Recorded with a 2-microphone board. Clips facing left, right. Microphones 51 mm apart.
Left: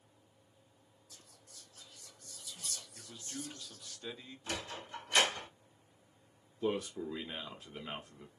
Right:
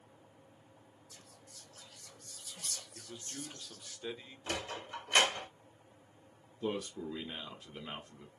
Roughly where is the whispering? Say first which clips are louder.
Right 1 dB; right.